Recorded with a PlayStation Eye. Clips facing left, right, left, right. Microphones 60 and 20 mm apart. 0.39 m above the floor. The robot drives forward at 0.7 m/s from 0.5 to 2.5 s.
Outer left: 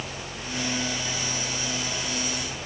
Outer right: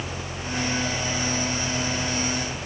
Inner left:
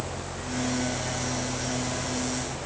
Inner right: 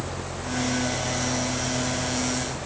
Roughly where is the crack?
No crack in this recording.